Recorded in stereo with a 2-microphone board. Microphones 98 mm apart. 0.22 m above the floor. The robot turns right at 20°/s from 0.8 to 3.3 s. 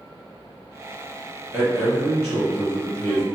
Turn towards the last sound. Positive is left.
turn(degrees=20)